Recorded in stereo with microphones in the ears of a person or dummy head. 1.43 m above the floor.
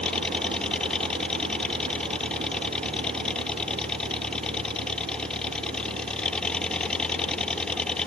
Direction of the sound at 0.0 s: 5° left (ahead or behind).